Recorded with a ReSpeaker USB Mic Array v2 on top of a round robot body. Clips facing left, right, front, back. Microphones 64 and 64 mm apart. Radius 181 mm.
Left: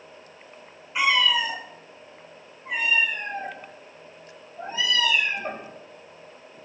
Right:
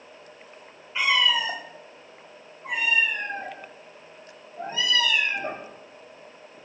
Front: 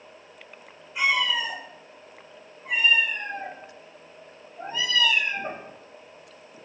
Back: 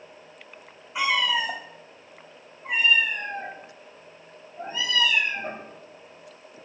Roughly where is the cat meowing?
Behind.